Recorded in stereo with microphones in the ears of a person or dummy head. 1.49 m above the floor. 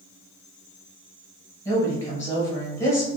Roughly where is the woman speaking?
Centre.